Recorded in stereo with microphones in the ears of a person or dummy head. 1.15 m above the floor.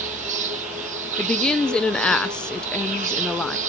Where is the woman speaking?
5° left (ahead or behind), 0.5 m.